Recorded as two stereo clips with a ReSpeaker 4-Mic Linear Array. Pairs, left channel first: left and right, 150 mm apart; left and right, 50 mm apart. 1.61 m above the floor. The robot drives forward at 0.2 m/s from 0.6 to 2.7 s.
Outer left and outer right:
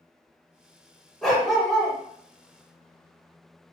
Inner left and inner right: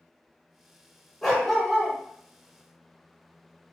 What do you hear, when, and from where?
1.2 s a dog barking: centre (ahead or behind), 1.0 m